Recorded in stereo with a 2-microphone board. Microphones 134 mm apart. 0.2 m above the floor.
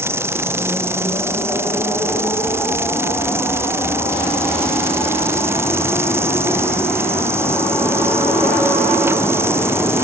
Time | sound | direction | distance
0.0 | an insect | 20° right (ahead or behind) | ?